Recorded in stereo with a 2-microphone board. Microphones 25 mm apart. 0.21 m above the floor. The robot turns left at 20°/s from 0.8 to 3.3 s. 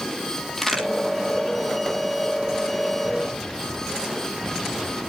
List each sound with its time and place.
0.6 s a crack: 15° left (ahead or behind), 7 m